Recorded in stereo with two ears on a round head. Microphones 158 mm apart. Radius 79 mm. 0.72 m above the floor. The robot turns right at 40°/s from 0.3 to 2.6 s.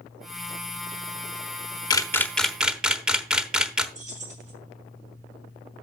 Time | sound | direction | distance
1.9 | a camera shutter | 25° left (ahead or behind) | 1.0 m
4.0 | keys jangling | 45° right (ahead or behind) | 4 m